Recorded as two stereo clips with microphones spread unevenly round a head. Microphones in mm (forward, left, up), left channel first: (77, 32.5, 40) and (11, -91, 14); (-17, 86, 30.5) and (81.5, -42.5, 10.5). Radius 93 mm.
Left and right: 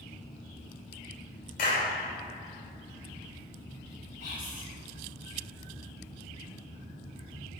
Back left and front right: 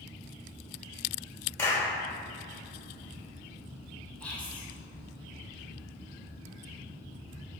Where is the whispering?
45° left, 2.5 m.